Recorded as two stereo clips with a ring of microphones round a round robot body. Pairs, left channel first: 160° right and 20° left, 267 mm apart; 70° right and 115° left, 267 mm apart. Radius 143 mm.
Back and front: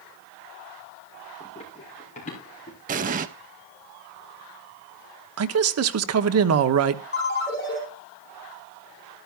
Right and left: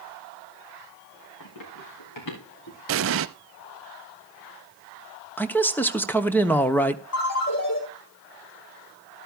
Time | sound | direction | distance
1.4 | running footsteps | 90° right | 5.5 m
2.9 | an explosion | 80° left | 0.5 m
5.4 | a man speaking | 15° left | 1.0 m
7.1 | a ringtone | 105° right | 5 m